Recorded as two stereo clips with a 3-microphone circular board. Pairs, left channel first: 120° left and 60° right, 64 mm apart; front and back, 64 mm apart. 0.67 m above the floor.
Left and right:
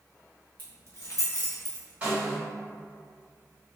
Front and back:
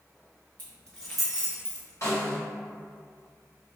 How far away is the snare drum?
About 1.5 m.